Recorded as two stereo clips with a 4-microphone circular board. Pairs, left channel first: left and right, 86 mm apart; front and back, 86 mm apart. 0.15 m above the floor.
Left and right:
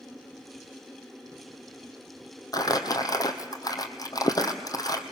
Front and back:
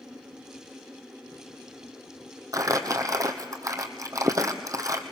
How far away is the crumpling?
About 1.4 m.